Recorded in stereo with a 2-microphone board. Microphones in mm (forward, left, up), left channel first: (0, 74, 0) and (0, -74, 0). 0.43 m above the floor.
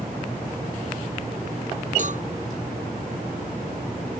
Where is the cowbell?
55° right (ahead or behind).